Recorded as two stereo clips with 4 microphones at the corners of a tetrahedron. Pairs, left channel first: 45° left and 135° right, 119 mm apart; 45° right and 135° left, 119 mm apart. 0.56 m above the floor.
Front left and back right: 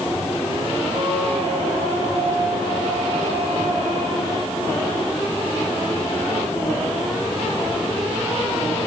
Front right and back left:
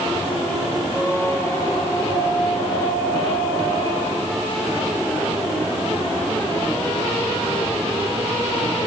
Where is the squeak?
110° right, 6 m.